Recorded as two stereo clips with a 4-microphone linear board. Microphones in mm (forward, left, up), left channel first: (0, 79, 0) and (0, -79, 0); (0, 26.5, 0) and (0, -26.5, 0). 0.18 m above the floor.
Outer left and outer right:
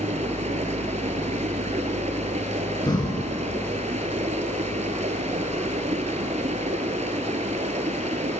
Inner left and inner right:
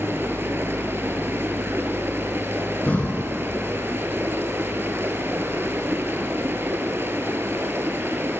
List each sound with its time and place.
0.0 s running water: 50° right (ahead or behind), 0.8 m
2.9 s breathing: 30° left (ahead or behind), 1.0 m